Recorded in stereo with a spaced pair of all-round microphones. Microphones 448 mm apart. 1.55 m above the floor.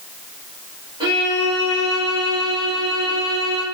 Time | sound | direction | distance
1.0 | a violin | 10° right (ahead or behind) | 3 m